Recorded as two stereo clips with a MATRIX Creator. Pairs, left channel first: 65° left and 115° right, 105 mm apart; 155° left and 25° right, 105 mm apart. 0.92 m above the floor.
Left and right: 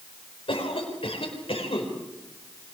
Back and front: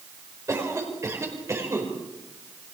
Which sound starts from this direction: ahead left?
A cough, at 0.5 s.